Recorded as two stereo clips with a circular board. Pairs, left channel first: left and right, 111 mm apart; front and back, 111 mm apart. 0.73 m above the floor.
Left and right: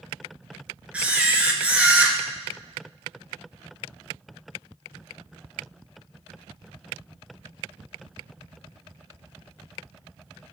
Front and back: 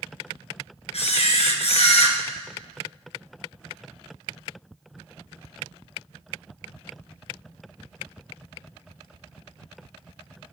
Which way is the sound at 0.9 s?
10° right.